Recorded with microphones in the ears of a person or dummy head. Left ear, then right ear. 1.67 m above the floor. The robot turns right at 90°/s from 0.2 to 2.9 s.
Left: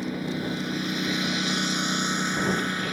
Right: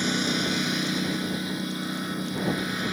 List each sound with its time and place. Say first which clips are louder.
0.0 s a lawn mower: right 6 dB; 70° right; by 2.9 s 170° left